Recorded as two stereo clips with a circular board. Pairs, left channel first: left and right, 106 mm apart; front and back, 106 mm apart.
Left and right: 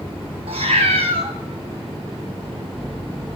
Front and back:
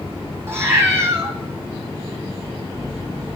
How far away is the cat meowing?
About 0.9 m.